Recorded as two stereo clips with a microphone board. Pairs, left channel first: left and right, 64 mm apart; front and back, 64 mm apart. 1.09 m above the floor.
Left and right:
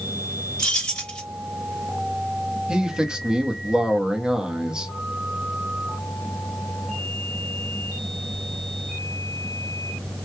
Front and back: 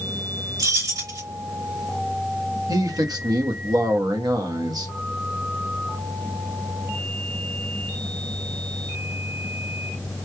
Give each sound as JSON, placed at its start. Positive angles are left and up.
{"t": 0.6, "sound": "keys jangling", "azimuth_deg": 165, "distance_m": 1.9}
{"t": 2.7, "sound": "a man speaking", "azimuth_deg": -170, "distance_m": 1.1}